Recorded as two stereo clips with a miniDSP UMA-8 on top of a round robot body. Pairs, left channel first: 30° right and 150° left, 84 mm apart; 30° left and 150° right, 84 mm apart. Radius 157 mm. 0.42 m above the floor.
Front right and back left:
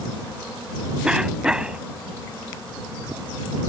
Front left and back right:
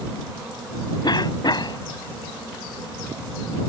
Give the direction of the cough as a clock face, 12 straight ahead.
10 o'clock.